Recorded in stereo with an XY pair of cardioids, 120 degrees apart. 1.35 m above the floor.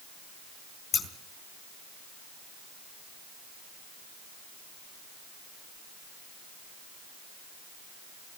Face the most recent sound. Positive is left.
turn(degrees=30)